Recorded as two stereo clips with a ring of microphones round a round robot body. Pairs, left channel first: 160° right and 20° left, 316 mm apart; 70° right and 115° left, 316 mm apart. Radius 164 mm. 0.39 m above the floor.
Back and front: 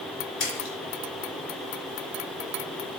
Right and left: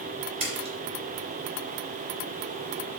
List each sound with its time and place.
0.4 s a splash: 175° right, 3 m